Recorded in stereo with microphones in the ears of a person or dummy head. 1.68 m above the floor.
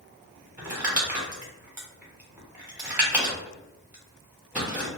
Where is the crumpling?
10° right (ahead or behind), 0.8 m.